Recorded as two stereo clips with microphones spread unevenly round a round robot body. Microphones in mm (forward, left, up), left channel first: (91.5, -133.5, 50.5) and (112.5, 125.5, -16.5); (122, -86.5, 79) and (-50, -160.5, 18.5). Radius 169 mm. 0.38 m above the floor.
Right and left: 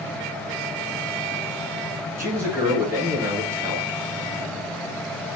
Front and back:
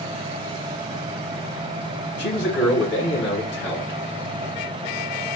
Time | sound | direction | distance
2.2 | a man speaking | 30° left | 1.7 m